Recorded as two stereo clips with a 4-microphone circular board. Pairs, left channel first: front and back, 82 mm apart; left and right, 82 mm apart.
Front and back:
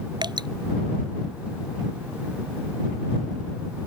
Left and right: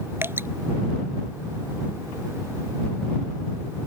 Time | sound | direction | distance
0.2 | dripping | 150° right | ?